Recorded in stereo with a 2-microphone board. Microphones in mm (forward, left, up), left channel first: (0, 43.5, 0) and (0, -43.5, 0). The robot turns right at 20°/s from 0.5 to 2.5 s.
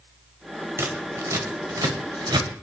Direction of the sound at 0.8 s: 30° right (ahead or behind).